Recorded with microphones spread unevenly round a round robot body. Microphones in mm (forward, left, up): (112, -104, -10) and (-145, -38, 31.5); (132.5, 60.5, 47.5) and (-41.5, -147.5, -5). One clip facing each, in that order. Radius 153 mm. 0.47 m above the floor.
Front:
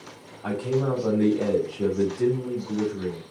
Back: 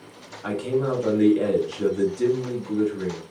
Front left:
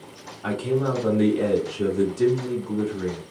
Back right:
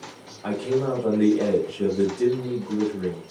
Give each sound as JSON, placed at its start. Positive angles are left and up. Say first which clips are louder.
{"t": 0.4, "sound": "a man speaking", "louder": "back 1 dB, even", "azimuth_deg": 115, "distance_m": 1.4}